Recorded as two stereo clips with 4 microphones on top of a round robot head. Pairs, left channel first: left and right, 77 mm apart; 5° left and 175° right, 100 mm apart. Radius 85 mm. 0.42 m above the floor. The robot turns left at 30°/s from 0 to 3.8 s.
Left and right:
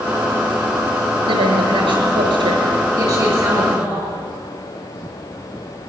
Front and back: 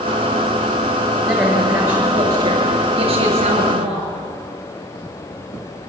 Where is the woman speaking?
80° right, 7 m; by 4.1 s 155° right, 7 m.